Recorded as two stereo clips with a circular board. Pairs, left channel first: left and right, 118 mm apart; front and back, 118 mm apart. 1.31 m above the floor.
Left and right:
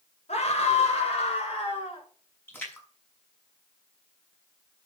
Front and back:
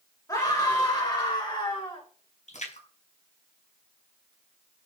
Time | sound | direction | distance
0.3 | a scream | 60° left | 7.5 m
2.5 | a splash | 15° left | 7 m